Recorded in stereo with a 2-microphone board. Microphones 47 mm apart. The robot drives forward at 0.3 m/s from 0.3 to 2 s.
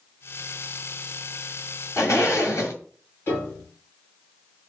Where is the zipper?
65° left (ahead or behind), 1.9 m.